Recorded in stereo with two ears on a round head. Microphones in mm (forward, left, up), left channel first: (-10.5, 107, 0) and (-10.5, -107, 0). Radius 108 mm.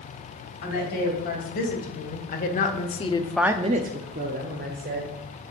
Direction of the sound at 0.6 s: 40° left (ahead or behind).